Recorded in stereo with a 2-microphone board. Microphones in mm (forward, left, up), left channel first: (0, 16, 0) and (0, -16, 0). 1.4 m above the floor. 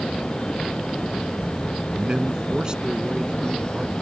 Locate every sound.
1.9 s a man speaking: 25° right (ahead or behind)